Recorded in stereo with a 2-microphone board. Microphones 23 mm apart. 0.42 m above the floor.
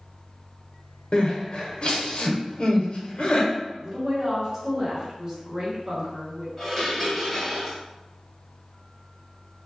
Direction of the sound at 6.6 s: Centre (ahead or behind).